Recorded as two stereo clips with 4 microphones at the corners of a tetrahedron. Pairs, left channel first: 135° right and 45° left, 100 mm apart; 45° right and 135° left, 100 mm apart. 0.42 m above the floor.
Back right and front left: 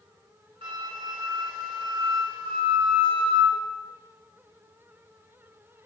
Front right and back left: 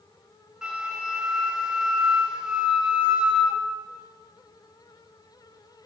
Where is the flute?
55° left, 1.3 m.